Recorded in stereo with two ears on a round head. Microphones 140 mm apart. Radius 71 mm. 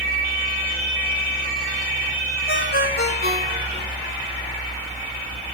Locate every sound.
2.5 s a ringtone: 65° left (ahead or behind), 3 m